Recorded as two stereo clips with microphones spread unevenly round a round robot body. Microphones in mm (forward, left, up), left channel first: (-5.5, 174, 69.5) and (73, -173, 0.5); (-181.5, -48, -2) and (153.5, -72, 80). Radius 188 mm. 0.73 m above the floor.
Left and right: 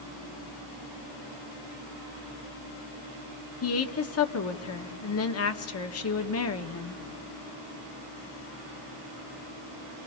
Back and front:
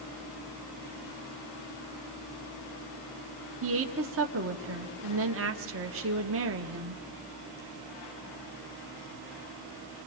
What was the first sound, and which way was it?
A woman speaking, 55° left.